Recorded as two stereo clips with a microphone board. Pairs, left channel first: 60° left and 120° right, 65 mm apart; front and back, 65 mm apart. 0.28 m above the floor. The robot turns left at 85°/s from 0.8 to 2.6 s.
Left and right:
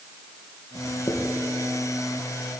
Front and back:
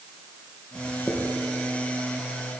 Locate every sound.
0.8 s writing: 80° left, 3 m; by 1.3 s 35° left, 3 m